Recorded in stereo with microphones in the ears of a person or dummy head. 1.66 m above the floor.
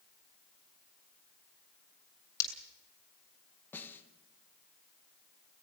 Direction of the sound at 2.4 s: 20° left (ahead or behind).